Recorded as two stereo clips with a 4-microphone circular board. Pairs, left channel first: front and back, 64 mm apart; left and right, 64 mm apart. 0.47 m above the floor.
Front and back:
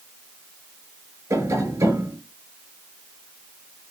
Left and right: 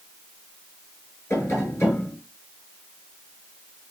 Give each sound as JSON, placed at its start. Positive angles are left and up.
{"t": 1.3, "sound": "tapping", "azimuth_deg": 140, "distance_m": 8.0}